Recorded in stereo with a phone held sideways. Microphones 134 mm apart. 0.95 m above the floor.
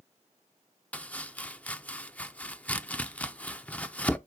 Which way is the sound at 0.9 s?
10° left (ahead or behind).